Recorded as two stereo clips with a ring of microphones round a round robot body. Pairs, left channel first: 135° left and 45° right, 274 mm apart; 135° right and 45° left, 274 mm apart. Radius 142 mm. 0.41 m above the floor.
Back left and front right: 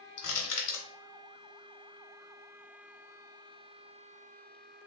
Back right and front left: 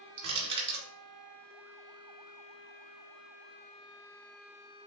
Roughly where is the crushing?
Left.